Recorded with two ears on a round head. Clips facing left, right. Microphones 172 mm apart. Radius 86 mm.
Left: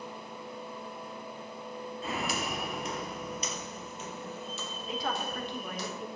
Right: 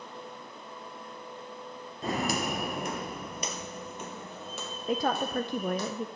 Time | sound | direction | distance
2.0 | footsteps | 35° right (ahead or behind) | 1.4 m
4.9 | a woman speaking | 40° right (ahead or behind) | 0.6 m